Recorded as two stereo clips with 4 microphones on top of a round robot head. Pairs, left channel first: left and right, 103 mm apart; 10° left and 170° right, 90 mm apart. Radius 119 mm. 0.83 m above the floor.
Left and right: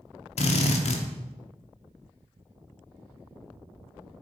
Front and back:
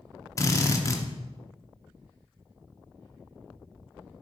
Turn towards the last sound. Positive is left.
turn(degrees=65)